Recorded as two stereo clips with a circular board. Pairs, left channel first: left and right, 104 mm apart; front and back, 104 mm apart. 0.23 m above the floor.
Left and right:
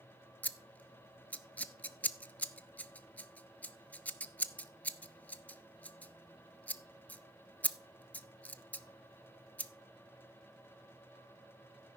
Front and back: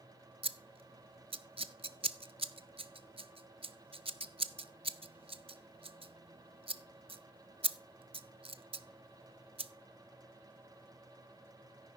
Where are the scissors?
165° left, 0.5 m.